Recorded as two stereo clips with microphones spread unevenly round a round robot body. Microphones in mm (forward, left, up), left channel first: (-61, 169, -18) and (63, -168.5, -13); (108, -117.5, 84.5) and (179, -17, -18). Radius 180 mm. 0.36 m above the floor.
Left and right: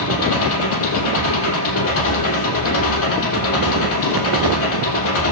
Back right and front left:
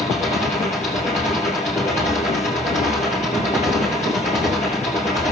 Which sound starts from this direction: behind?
An engine running, at 0.0 s.